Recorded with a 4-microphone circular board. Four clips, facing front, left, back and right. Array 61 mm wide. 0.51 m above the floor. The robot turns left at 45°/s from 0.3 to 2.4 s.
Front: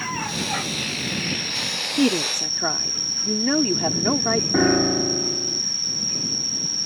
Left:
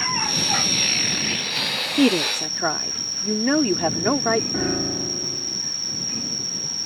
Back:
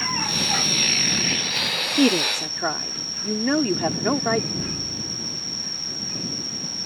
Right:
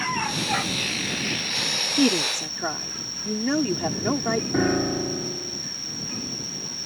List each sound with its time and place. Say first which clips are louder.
0.0 s an insect: even, even; 160° left; by 6.9 s 65° left
2.0 s a woman speaking: left 3 dB, back 1 dB; 120° left; by 4.4 s 100° left
4.5 s a piano: right 3 dB, front 14 dB; 10° right